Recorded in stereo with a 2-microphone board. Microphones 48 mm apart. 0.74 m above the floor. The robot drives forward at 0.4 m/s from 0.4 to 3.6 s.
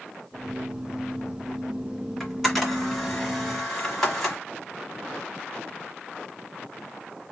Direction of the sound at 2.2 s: 10° left (ahead or behind).